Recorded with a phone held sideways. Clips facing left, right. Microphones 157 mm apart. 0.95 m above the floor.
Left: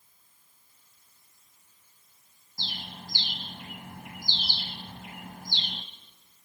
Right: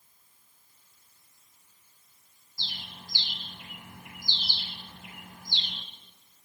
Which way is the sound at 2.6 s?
55° left (ahead or behind).